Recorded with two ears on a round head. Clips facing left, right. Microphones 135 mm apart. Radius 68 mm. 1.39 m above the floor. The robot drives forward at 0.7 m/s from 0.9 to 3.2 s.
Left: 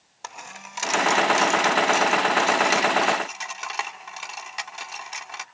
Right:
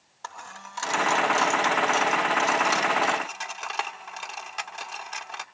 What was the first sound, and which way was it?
A dropped coin, 20° left (ahead or behind).